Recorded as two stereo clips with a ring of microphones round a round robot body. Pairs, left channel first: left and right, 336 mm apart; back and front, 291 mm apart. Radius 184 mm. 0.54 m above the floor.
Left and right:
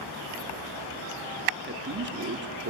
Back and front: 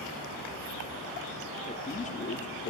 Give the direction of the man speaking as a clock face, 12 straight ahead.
4 o'clock.